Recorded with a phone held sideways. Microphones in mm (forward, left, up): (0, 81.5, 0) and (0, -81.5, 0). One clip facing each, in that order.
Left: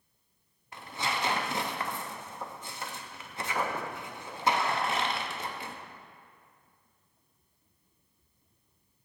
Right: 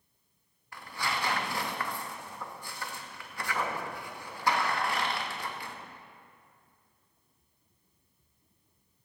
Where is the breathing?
I don't hear breathing.